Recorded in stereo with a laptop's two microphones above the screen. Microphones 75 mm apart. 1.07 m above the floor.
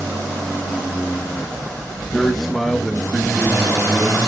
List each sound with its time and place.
2.1 s a man speaking: centre (ahead or behind), 1.0 m; by 4.3 s 5° left (ahead or behind), 2 m